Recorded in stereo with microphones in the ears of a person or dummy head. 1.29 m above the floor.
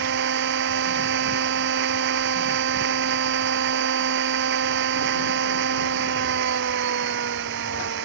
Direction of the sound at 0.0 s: 60° right (ahead or behind).